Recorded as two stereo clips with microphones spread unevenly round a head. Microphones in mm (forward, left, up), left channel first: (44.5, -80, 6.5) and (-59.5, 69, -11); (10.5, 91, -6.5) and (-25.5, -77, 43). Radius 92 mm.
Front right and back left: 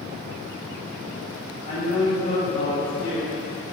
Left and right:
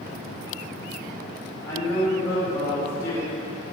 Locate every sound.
1.7 s a man speaking: 5° right, 2 m